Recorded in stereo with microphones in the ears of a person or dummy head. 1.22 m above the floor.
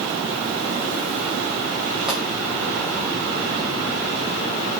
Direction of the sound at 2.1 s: 5° right (ahead or behind).